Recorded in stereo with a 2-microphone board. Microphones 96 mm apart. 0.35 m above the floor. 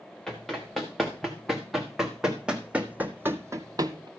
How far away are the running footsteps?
About 2.5 m.